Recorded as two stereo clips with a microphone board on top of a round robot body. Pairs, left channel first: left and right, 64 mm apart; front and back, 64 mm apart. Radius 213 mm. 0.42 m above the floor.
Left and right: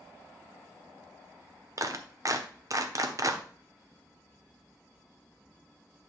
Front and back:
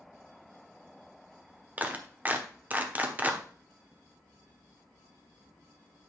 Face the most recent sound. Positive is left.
turn(degrees=-120)